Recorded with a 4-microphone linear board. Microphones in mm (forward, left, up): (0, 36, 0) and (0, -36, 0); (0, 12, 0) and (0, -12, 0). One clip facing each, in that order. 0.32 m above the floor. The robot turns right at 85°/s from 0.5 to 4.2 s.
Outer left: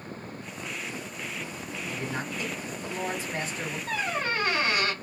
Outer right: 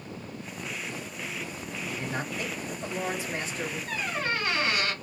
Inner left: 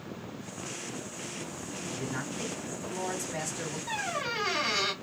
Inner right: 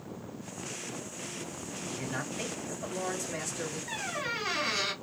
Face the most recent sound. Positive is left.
turn(degrees=45)  # may be behind; listen again after turning